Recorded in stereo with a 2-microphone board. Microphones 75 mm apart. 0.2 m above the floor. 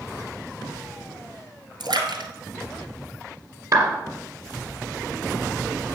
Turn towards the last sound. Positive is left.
turn(degrees=-50)  # may be behind; listen again after turning